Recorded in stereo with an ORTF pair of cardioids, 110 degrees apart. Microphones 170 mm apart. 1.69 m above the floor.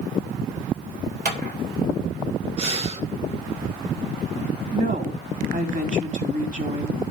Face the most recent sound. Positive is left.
turn(degrees=-50)